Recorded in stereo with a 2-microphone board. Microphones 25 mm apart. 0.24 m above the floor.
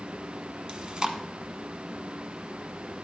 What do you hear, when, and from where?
0.7 s chewing: 40° right (ahead or behind), 1.1 m